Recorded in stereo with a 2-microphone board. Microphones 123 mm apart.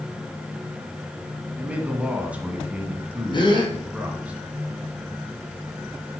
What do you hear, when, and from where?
1.6 s a man speaking: 10° right (ahead or behind), 1.8 m
3.3 s a gasp: 40° left (ahead or behind), 2 m